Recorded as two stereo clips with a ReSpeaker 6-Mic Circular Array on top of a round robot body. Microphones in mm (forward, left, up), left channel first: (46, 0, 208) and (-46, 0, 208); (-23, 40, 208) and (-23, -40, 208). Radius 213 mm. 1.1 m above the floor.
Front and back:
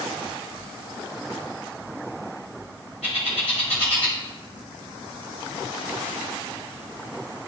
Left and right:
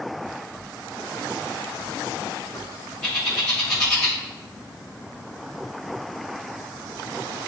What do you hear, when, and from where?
3.0 s a bird: 15° left, 0.9 m